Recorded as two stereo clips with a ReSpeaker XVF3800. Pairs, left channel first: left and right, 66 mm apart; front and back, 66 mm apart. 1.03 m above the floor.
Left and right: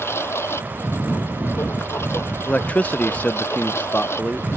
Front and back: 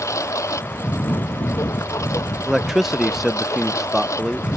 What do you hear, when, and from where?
0.0 s a lawn mower: 40° left
2.5 s a man speaking: 100° left